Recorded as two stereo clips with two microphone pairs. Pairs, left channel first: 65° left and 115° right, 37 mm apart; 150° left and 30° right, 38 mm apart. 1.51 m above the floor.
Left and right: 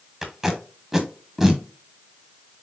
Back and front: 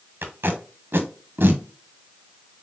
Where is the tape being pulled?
35° right, 0.9 m.